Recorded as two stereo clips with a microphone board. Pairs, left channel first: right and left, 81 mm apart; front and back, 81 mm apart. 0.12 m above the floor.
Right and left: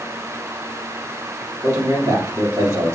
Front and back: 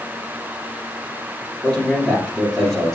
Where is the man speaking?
80° left, 2.5 m.